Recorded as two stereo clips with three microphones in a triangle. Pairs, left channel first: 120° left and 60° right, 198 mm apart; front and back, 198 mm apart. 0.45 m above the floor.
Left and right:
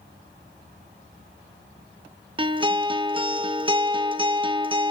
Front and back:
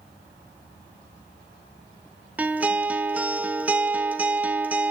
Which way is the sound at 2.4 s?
105° right.